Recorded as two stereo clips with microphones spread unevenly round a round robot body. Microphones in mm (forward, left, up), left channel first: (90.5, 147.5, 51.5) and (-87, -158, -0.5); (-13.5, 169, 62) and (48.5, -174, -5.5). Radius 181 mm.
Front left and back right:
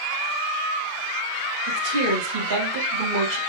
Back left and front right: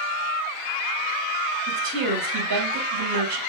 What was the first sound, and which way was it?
A woman speaking, 105° right.